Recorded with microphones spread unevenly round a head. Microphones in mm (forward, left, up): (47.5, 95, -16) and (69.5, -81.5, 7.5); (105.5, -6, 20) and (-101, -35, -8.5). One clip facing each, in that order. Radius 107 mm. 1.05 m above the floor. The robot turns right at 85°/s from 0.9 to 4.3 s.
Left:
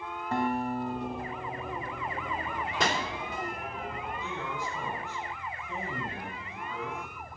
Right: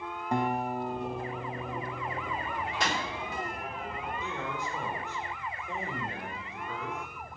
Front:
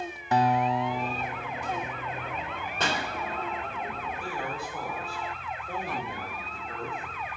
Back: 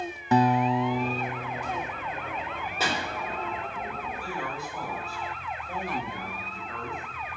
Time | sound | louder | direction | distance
0.3 | a guitar | even, back 3 dB | 160° right | 0.5 m
2.8 | a pop | left 3 dB, even | 105° left | 2.5 m
4.2 | a man speaking | even, front 1 dB | 65° right | 4.5 m